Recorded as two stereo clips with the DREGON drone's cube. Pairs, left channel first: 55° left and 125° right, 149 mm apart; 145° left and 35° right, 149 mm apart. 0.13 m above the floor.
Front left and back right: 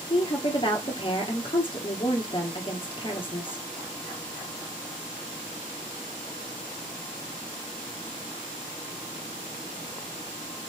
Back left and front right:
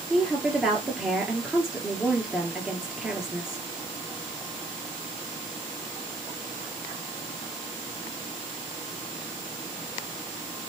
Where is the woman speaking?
50° left, 1.3 m.